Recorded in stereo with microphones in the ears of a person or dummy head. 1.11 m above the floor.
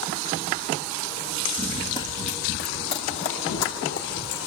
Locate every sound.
1.6 s running footsteps: 5° left (ahead or behind), 1.6 m; by 4.4 s 70° left (ahead or behind), 4 m